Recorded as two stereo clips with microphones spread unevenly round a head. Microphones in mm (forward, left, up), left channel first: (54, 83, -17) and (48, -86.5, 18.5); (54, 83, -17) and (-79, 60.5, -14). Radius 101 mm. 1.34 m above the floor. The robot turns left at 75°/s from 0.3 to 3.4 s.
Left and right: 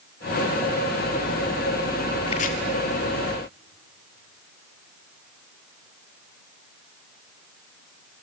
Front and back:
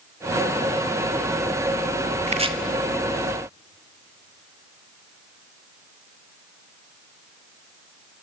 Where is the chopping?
160° left, 1.7 m; by 2.5 s 140° left, 1.7 m.